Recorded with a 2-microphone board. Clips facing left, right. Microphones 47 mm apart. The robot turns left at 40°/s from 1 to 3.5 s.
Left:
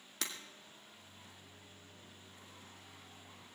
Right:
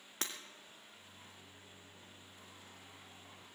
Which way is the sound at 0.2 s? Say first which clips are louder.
Even; 40° right (ahead or behind).